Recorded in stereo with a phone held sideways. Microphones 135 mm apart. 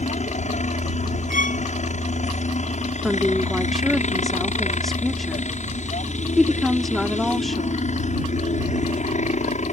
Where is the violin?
75° left (ahead or behind).